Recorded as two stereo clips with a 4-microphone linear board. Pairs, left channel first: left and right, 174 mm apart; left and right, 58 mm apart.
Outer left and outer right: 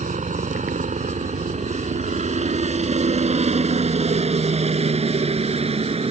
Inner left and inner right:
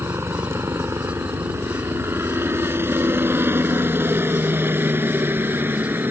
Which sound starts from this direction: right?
A helicopter, at 0.0 s.